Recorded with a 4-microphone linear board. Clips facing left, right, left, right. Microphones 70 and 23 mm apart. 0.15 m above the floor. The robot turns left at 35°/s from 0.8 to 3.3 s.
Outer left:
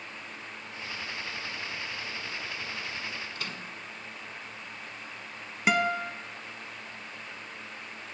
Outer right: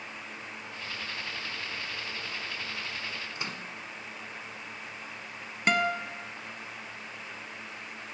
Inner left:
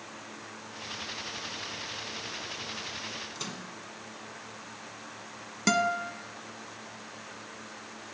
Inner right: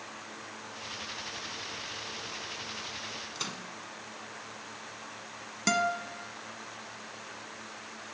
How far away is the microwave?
About 0.8 m.